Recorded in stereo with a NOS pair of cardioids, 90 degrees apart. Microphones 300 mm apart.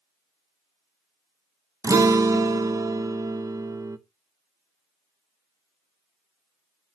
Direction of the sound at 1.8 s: 10° right.